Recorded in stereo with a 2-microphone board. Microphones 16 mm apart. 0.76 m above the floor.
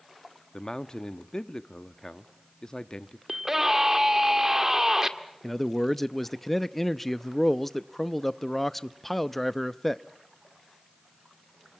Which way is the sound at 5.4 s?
10° left (ahead or behind).